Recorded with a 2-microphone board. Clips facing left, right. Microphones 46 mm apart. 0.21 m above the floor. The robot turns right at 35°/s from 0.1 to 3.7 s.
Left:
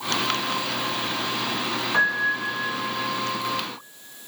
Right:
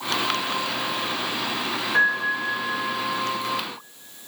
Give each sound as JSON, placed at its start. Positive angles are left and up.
{"t": 1.9, "sound": "a piano", "side_deg": 35, "distance_m": 2.0}